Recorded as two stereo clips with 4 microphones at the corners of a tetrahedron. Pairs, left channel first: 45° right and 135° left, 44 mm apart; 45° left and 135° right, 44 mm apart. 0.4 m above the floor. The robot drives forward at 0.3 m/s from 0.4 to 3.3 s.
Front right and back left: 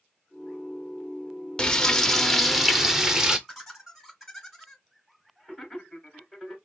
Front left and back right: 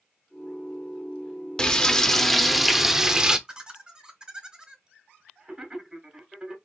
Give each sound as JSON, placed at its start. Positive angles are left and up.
{"t": 1.6, "sound": "frying", "azimuth_deg": 0, "distance_m": 0.6}
{"t": 3.5, "sound": "laughter", "azimuth_deg": -145, "distance_m": 1.2}